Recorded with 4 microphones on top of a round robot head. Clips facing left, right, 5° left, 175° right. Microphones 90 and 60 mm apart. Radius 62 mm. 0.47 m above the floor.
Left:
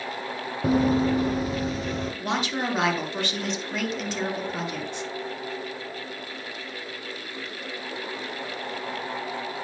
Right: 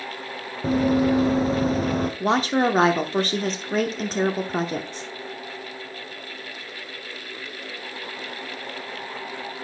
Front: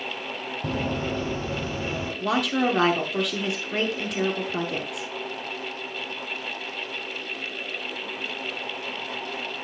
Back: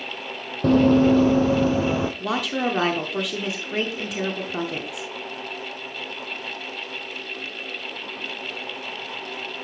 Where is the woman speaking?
90° right, 0.8 m.